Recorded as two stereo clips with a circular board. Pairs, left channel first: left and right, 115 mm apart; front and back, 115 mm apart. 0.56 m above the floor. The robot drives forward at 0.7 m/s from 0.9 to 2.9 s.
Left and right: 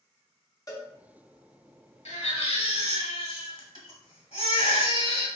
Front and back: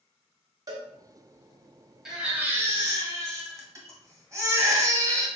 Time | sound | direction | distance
0.7 | a cowbell | 135° left | 1.0 m
2.0 | a baby crying | 95° left | 1.2 m